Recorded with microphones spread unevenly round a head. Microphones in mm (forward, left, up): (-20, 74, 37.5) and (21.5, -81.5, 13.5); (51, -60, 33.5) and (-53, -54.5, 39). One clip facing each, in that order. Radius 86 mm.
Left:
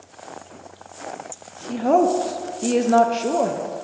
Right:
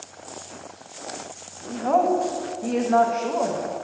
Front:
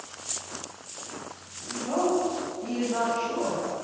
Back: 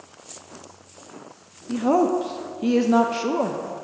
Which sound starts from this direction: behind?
A woman speaking, at 1.7 s.